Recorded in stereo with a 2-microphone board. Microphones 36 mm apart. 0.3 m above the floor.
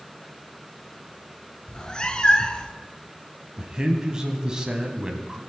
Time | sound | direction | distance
1.7 | a cat meowing | 25° left (ahead or behind) | 0.8 m
3.6 | a man speaking | 25° right (ahead or behind) | 1.8 m